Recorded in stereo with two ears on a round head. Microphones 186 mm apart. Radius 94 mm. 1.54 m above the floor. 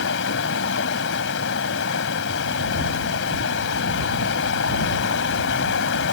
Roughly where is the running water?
Left.